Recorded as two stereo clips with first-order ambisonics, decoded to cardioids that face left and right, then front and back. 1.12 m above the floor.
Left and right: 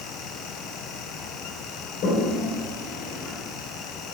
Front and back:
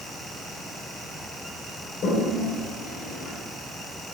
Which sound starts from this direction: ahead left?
A toilet flushing, at 2.0 s.